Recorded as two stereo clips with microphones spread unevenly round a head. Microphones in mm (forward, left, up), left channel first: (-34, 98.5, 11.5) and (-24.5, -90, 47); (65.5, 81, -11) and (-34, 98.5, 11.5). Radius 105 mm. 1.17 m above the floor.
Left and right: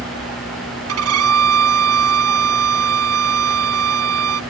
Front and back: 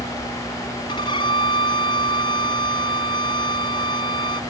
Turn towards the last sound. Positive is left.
turn(degrees=-80)